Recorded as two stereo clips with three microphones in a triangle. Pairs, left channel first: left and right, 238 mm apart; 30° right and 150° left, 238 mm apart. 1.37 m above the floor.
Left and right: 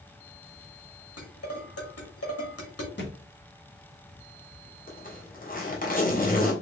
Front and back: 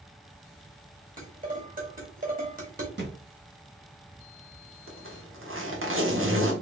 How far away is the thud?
About 2 m.